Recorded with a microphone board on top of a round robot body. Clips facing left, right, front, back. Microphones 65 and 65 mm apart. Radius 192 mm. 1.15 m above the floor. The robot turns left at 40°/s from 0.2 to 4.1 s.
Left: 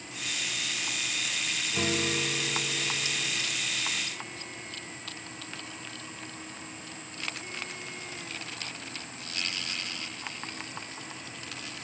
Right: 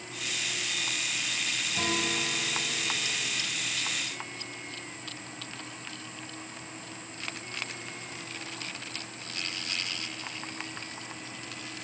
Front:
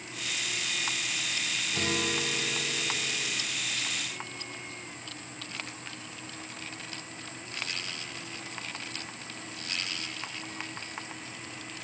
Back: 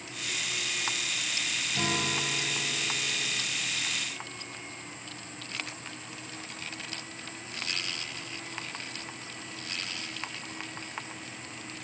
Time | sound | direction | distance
1.7 | a guitar | 30° left | 3 m